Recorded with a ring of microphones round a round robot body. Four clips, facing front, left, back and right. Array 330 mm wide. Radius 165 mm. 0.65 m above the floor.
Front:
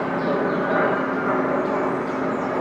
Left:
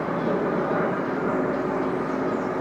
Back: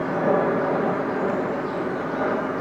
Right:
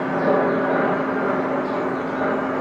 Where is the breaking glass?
No breaking glass in this recording.